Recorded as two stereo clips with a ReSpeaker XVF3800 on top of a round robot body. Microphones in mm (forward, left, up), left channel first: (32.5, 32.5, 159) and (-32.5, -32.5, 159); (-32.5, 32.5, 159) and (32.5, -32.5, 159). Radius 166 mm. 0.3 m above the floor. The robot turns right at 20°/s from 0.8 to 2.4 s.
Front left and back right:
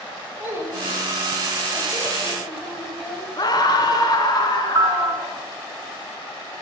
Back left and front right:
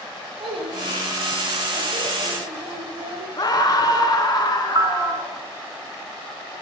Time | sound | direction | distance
0.4 | a child speaking | 70° right | 10 m
3.4 | a scream | 90° left | 4.5 m
4.8 | a piano | 90° right | 1.8 m